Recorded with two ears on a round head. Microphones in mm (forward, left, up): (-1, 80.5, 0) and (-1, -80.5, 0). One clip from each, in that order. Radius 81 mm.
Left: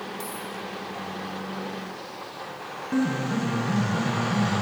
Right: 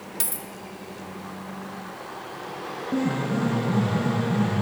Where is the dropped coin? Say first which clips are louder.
Left 1 dB; 70° right (ahead or behind), 1.0 m.